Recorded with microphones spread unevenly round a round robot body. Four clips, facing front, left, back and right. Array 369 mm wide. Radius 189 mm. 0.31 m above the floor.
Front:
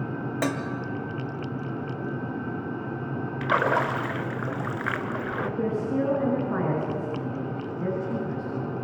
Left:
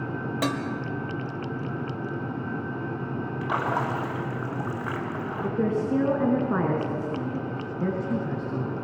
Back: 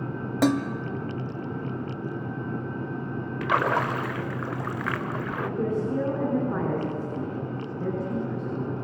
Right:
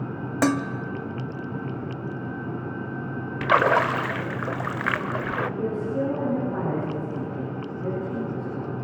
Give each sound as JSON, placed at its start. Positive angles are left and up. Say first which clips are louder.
{"t": 0.4, "sound": "dishes clattering", "louder": "right 7 dB, back 7 dB", "azimuth_deg": -140, "distance_m": 0.9}
{"t": 3.4, "sound": "a splash", "louder": "right 8 dB, even", "azimuth_deg": -80, "distance_m": 1.1}
{"t": 5.4, "sound": "a woman speaking", "louder": "left 2 dB, back 1 dB", "azimuth_deg": 80, "distance_m": 5.0}